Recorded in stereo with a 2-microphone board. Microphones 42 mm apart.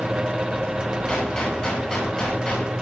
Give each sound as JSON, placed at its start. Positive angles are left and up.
{"t": 1.1, "sound": "a gunshot", "side_deg": 20, "distance_m": 10.0}